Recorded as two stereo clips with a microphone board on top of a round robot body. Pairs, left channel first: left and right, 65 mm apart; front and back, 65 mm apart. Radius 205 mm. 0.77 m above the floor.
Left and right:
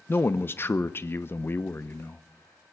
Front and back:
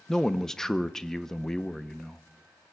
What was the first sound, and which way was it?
A man speaking, 75° left.